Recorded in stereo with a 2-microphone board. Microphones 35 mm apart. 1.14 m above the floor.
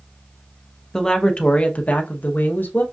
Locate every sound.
0.9 s a woman speaking: 15° left (ahead or behind), 1.0 m; by 2.8 s 75° left (ahead or behind), 1.1 m